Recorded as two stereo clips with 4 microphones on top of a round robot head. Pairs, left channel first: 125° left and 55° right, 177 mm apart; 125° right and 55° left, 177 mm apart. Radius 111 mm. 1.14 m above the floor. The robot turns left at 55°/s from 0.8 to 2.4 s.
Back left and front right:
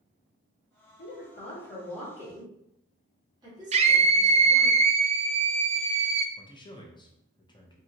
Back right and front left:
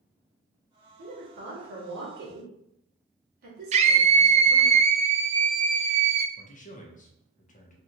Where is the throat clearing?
I don't hear throat clearing.